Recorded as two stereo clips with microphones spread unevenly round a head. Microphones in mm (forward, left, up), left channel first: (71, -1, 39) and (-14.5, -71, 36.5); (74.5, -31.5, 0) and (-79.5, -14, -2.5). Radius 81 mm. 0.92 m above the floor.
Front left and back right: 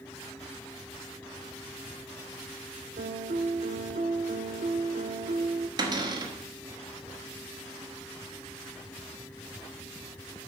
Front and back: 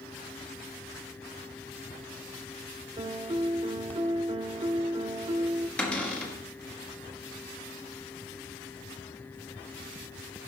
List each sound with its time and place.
3.0 s a piano: 130° right, 0.6 m
5.8 s a cupboard door: 90° right, 1.5 m